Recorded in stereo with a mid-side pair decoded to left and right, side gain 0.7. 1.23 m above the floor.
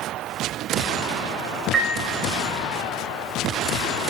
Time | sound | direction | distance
1.7 | a piano | 30° right | 0.7 m